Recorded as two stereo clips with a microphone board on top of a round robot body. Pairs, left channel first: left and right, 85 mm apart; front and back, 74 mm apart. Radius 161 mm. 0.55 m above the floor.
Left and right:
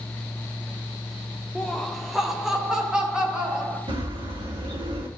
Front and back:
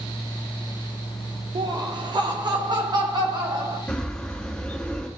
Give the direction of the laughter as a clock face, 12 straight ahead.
6 o'clock.